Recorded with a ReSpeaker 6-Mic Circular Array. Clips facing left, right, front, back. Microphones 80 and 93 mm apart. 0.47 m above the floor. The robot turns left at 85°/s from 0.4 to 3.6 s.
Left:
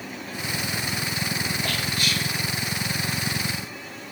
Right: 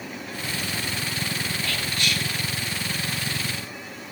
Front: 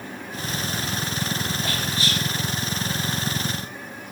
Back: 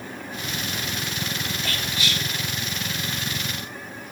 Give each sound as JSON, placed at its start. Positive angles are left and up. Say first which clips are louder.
{"t": 1.6, "sound": "whispering", "louder": "left 1 dB, front 2 dB", "azimuth_deg": 45, "distance_m": 1.7}